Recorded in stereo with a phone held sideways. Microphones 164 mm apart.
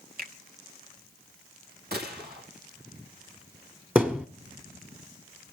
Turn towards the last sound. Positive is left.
turn(degrees=-10)  # may be behind; listen again after turning